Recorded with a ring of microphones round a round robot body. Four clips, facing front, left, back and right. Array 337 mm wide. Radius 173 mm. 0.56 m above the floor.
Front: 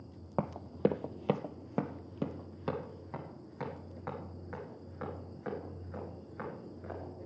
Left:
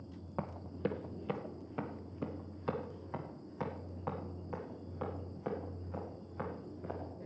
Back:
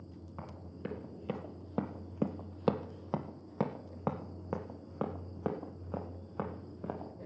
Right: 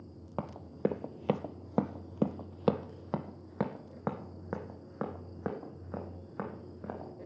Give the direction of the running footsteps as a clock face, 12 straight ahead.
1 o'clock.